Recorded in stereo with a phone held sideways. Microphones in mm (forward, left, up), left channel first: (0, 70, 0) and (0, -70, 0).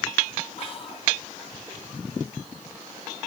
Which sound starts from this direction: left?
Whispering, at 0.6 s.